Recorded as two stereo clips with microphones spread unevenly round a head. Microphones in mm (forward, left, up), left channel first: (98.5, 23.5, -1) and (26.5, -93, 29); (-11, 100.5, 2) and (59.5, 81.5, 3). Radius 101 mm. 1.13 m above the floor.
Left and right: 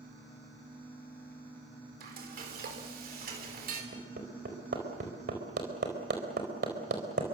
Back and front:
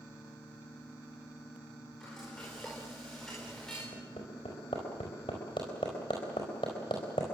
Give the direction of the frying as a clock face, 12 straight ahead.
4 o'clock.